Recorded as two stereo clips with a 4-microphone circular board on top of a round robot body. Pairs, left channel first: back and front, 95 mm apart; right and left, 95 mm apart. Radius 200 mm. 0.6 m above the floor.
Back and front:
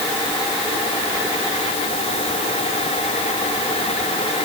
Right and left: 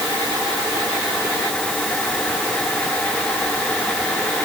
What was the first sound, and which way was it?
Only background noise.